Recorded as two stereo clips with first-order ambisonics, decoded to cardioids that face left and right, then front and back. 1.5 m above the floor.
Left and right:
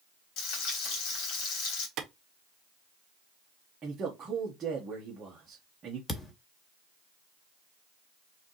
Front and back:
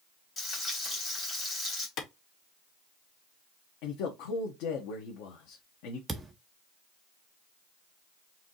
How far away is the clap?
About 1.2 m.